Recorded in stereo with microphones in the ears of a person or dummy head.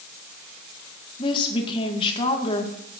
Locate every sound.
1.2 s a woman speaking: 30° left (ahead or behind), 1.9 m